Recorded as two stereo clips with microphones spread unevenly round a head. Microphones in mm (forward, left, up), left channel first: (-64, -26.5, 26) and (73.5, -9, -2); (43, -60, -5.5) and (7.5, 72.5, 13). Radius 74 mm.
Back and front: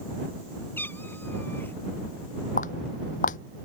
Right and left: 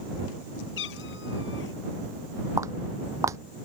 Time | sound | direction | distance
0.8 | a cat meowing | 100° right | ?
2.6 | footsteps | 170° left | ?